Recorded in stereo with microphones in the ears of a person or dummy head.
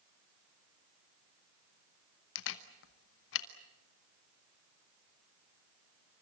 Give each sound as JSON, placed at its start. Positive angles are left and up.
{"t": 2.4, "sound": "a camera shutter", "side_deg": 60, "distance_m": 1.1}